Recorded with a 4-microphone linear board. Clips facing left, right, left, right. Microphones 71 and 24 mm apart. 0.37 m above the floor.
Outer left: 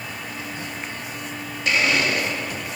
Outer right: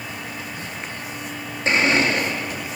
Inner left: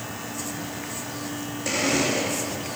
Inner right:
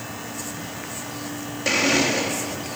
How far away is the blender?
About 5.5 m.